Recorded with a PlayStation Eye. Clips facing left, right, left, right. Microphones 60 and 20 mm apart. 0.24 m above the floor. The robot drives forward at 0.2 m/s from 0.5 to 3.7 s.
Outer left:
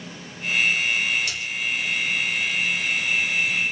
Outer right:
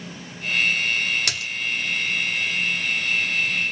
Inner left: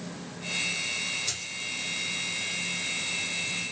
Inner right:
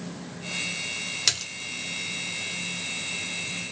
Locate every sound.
1.3 s a splash: 70° right (ahead or behind), 0.6 m